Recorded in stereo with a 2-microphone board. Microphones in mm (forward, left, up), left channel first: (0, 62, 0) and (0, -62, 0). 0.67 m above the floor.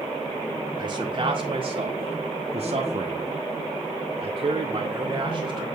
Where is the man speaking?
40° right (ahead or behind), 2 m; by 5.7 s 30° right (ahead or behind), 2.5 m.